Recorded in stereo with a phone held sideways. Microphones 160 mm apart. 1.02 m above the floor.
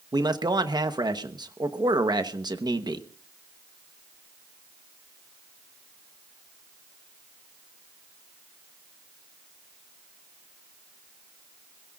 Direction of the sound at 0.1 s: 25° right (ahead or behind).